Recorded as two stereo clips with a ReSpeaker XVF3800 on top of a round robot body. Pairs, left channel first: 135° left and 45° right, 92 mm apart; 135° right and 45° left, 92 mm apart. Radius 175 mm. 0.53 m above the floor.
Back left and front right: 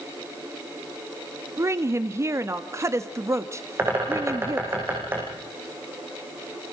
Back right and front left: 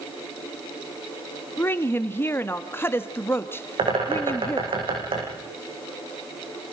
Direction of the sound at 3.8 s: 20° left.